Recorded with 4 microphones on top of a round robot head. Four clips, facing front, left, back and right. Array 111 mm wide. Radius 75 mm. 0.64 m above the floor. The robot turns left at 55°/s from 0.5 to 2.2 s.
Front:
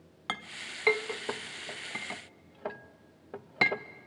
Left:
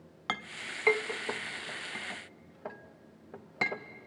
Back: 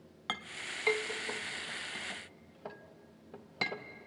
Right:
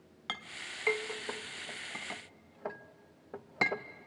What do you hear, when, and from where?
0.3 s a clink: 70° left, 0.6 m; by 3.9 s 25° right, 0.6 m